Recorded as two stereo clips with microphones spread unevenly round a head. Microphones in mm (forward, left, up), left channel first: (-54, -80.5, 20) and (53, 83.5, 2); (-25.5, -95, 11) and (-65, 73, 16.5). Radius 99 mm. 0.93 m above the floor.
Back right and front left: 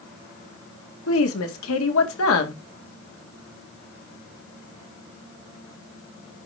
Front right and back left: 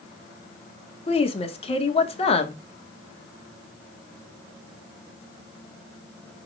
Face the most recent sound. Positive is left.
turn(degrees=-130)